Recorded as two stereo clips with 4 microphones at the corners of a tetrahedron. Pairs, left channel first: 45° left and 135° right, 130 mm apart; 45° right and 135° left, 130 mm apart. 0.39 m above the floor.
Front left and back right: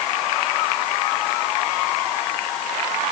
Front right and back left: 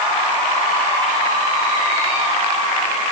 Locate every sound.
Only background noise.